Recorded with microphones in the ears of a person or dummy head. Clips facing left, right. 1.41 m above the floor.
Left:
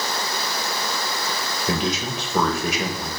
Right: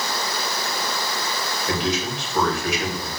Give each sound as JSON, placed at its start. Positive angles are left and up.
{"t": 1.7, "sound": "a man speaking", "side_deg": 80, "distance_m": 2.0}